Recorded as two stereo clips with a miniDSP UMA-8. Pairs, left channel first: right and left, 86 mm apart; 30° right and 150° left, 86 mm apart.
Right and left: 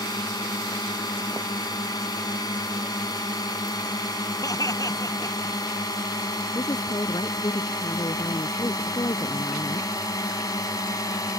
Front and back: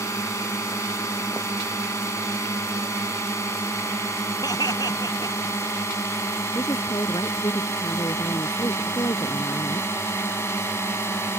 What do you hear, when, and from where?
0.0 s a drone: 75° right; by 11.4 s 80° right
4.4 s laughter: 55° right
6.5 s a woman speaking: 60° right